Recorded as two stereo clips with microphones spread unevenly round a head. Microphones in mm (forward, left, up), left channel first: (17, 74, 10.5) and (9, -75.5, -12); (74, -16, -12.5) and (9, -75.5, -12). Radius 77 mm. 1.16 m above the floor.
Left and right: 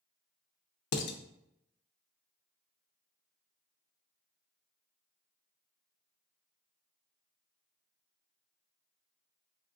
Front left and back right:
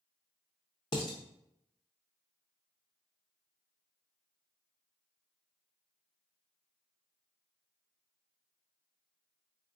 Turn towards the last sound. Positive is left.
turn(degrees=100)